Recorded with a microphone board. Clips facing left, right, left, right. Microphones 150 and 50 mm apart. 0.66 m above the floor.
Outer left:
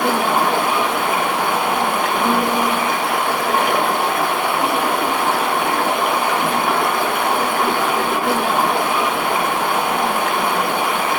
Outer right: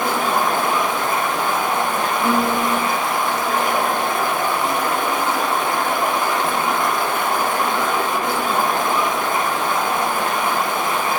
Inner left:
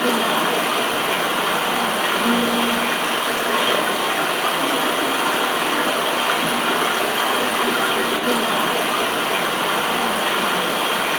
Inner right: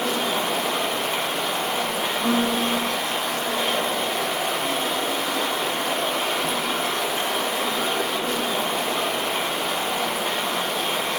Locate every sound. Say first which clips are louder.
0.0 s running water: outer left 2 dB, inner left 5 dB; 70° left (ahead or behind), 1.5 m
2.2 s a piano: even, inner left 1 dB; 10° left (ahead or behind), 1.1 m